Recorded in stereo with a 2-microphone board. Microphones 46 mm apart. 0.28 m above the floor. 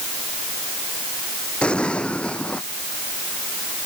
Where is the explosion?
20° left (ahead or behind).